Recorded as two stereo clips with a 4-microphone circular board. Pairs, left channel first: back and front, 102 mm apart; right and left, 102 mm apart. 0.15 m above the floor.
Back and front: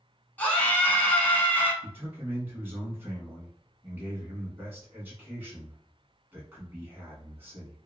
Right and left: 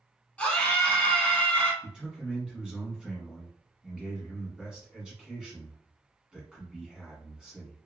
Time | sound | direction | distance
0.4 | a scream | 140° right | 1.0 m
1.8 | a man speaking | 20° left | 1.1 m